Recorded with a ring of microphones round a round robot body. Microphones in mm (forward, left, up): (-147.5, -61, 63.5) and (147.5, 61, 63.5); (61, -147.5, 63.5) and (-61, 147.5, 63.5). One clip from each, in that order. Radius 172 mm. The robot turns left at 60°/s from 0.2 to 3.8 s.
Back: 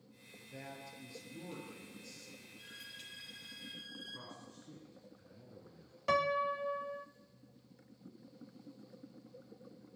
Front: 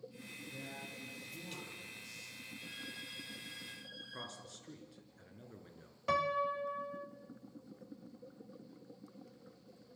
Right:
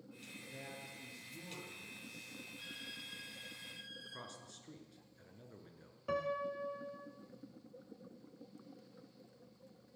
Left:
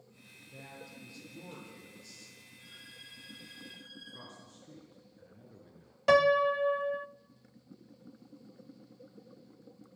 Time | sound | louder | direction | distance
0.3 | a man speaking | front 2 dB, left 1 dB | 130° right | 9 m
2.6 | a violin | front 3 dB, right 3 dB | 75° right | 10 m
4.1 | a man speaking | front 3 dB, even | 10° right | 5.5 m
6.1 | a piano | back 1 dB, left 14 dB | 120° left | 0.6 m